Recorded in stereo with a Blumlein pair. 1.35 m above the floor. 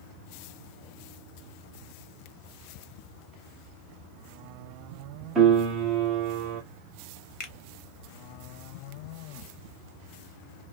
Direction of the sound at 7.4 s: 25° left.